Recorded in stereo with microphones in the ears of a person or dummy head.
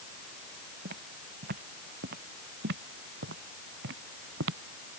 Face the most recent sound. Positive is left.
turn(degrees=-60)  # may be behind; listen again after turning